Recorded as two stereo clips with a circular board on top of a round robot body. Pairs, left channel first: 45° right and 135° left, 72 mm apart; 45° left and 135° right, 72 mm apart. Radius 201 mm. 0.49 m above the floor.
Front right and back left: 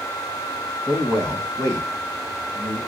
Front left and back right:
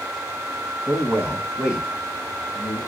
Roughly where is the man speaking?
Behind.